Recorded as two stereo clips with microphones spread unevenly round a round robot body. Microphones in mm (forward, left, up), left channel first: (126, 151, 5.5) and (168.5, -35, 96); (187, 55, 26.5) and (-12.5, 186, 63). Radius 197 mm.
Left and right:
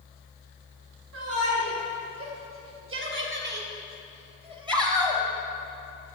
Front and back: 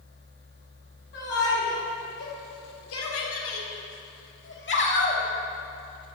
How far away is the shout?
About 4.5 m.